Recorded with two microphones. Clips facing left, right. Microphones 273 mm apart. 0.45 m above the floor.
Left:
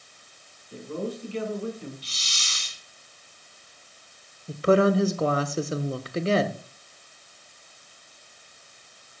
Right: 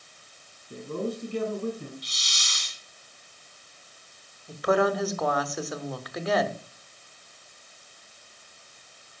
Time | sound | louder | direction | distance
0.7 | a man speaking | right 1 dB | 50° right (ahead or behind) | 3.5 m
2.0 | a hiss | even | 30° left (ahead or behind) | 2.5 m
4.5 | a woman speaking | left 4 dB | 30° left (ahead or behind) | 1.0 m